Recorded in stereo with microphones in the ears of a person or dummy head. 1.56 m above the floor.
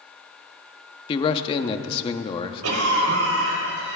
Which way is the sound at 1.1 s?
30° left (ahead or behind).